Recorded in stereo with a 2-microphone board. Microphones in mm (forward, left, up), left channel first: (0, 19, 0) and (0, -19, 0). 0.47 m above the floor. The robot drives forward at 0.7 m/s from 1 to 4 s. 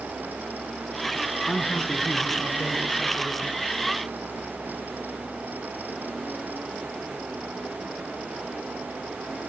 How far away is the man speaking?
About 5 m.